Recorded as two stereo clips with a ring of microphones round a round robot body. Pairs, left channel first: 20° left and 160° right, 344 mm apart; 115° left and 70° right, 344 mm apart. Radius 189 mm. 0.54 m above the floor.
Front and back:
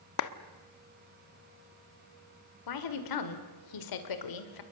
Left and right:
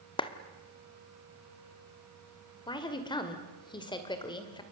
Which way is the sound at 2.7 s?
35° left.